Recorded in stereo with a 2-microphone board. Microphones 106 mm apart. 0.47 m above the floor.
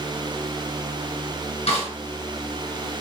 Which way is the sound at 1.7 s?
80° left.